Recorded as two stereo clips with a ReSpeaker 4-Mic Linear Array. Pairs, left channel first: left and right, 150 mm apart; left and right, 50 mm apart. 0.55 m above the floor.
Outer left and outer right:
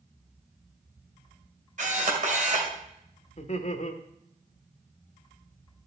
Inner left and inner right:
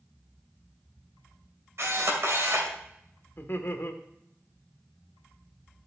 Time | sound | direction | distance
1.8 | a camera shutter | 60° right (ahead or behind) | 2.5 m
3.4 | laughter | 50° left (ahead or behind) | 1.4 m